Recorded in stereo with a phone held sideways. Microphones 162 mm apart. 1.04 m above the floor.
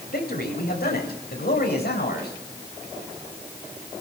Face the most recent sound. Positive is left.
turn(degrees=85)